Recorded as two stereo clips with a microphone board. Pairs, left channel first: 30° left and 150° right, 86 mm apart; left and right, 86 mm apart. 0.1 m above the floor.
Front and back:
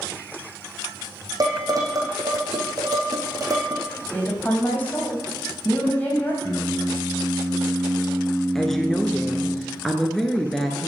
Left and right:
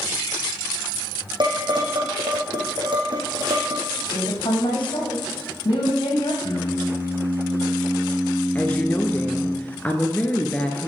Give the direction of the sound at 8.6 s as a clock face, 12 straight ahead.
8 o'clock.